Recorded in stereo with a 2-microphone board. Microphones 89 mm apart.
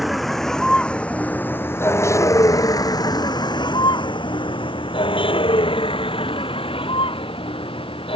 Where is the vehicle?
Centre (ahead or behind); by 8.2 s 85° left.